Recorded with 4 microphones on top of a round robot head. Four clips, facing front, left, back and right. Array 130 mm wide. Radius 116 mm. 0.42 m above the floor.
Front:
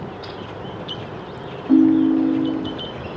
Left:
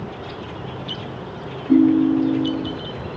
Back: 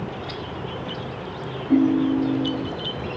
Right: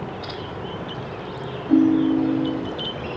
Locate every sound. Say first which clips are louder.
1.7 s a ringtone: left 2 dB, front 5 dB; 5° right, 1.1 m